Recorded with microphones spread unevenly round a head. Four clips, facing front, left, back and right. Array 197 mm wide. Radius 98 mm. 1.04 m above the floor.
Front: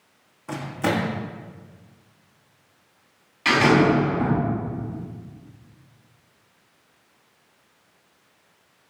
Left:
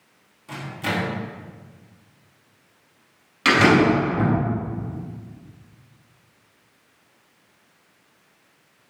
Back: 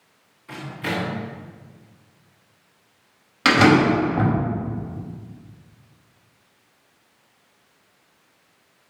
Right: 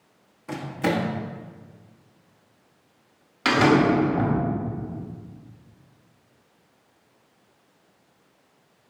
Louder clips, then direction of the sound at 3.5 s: Left 2 dB, back 2 dB; 170° left.